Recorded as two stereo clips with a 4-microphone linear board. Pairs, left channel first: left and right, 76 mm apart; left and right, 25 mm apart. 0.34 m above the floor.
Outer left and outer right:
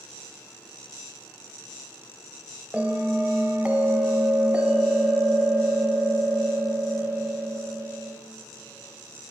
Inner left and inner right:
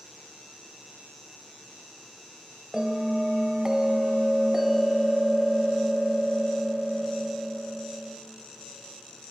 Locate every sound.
2.7 s a bell: 20° right (ahead or behind), 0.8 m